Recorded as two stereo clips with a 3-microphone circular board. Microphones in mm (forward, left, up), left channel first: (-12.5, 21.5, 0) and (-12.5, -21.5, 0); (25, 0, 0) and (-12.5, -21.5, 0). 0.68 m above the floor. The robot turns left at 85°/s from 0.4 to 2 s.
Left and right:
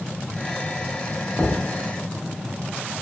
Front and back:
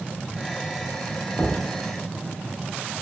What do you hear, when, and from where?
1.4 s knocking: 30° left, 0.7 m; by 1.6 s 10° left, 0.7 m